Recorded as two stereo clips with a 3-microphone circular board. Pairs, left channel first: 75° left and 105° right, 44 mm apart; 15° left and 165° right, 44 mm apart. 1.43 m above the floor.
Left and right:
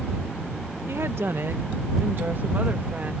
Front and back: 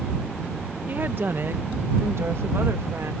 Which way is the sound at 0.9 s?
120° right.